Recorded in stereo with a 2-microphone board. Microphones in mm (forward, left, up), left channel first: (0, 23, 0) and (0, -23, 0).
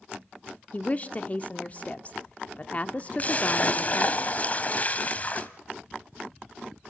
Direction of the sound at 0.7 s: 30° left (ahead or behind).